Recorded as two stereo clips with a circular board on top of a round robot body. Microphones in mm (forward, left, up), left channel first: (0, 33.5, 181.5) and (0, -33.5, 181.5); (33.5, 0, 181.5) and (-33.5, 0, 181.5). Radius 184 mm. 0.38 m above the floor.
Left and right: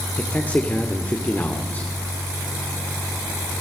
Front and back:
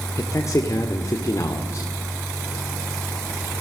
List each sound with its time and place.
0.2 s a man speaking: 30° left, 2.0 m